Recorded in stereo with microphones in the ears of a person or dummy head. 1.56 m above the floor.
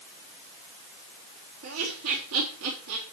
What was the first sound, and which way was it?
Laughter, 85° right.